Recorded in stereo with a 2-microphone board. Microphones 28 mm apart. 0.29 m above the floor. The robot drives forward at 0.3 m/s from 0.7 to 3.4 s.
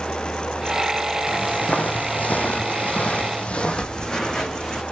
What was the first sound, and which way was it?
Footsteps, 60° left (ahead or behind).